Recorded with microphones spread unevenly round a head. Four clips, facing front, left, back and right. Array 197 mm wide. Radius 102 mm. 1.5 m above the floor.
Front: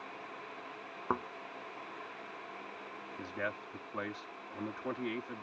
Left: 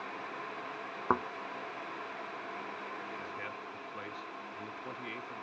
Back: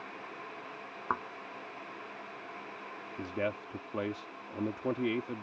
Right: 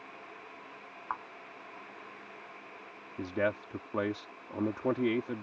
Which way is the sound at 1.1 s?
75° left.